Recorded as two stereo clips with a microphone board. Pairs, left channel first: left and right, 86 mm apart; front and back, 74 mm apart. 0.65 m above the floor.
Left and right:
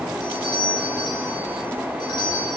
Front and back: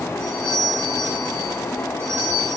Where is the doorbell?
125° left, 7.5 m.